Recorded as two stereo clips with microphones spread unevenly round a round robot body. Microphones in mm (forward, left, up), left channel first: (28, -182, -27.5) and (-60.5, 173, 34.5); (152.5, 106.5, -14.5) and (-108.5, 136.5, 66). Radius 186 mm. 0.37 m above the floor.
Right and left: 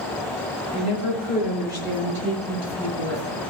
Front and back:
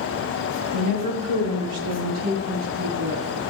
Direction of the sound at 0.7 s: 165° right.